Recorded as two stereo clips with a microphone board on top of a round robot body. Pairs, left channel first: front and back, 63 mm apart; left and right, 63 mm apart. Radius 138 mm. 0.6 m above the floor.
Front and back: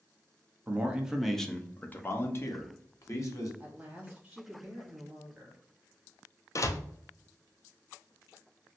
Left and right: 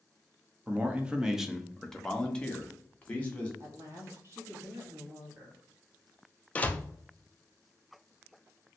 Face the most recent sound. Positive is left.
turn(degrees=25)